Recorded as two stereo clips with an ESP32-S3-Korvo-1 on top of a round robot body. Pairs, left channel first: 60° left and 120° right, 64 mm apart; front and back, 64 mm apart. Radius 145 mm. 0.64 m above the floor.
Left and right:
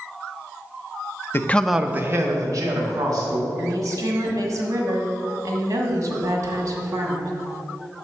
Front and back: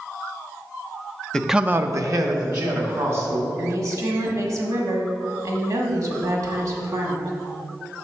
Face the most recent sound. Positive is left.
turn(degrees=-155)